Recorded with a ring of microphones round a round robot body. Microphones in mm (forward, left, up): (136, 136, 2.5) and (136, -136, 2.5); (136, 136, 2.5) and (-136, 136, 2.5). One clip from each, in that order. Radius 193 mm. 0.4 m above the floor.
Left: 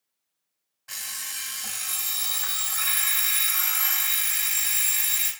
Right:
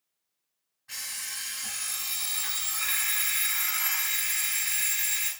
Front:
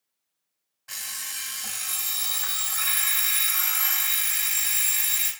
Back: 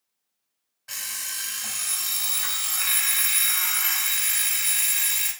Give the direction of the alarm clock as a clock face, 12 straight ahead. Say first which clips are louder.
Left 2 dB, back 2 dB; 9 o'clock.